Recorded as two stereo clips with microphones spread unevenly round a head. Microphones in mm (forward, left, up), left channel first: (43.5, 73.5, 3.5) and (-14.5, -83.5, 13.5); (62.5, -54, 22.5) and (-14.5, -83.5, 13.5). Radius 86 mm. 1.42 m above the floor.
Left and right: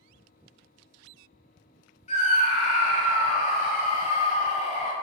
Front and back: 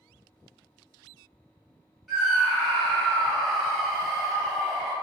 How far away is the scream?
About 0.5 m.